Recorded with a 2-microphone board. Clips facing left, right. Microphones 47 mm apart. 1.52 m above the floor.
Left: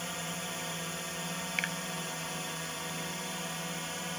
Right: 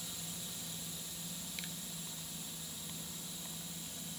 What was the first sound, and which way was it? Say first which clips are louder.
A drone: left 10 dB; 60° left (ahead or behind).